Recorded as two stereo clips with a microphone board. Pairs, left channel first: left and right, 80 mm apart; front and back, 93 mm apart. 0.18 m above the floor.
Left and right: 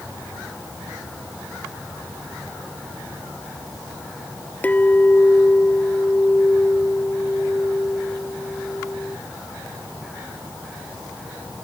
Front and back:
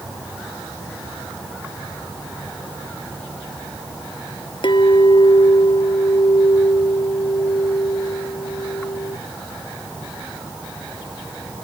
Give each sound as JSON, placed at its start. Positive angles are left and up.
{"t": 4.6, "sound": "a clink", "azimuth_deg": 20}